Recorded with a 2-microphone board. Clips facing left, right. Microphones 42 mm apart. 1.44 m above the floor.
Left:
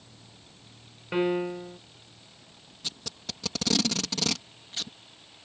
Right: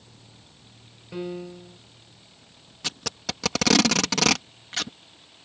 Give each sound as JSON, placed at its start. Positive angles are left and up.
{"t": 1.1, "sound": "a piano", "side_deg": 55}
{"t": 2.8, "sound": "tape being pulled", "side_deg": -85}